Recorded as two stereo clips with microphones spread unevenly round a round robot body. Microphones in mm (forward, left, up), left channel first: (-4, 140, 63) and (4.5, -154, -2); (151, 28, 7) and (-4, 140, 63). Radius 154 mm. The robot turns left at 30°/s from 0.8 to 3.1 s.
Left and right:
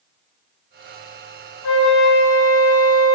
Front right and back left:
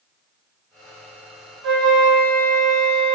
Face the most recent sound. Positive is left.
turn(degrees=70)